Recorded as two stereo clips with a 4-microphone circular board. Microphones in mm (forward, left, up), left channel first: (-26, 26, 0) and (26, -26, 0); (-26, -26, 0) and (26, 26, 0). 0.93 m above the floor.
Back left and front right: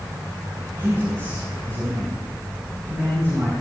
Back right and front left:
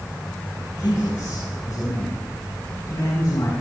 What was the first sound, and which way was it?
A man speaking, 95° right.